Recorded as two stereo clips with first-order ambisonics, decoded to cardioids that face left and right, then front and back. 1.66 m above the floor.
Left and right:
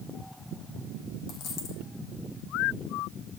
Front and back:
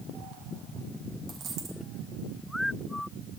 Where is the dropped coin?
130° left, 3.5 m.